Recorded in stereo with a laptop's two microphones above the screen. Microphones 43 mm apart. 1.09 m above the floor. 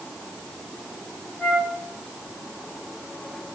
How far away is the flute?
About 4.5 m.